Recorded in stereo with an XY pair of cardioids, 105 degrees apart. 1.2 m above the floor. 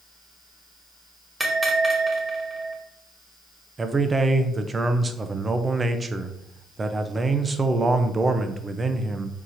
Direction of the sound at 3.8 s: 25° right.